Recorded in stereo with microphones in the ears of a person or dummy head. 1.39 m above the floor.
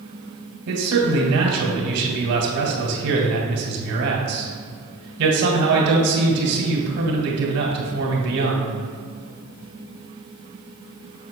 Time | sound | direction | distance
0.7 | a man speaking | 80° right | 2 m